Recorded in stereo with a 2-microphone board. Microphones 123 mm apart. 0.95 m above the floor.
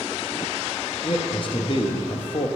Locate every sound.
1.0 s a man speaking: 45° left (ahead or behind), 0.9 m